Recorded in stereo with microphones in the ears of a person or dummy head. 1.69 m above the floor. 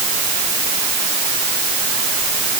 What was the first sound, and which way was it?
Only background noise.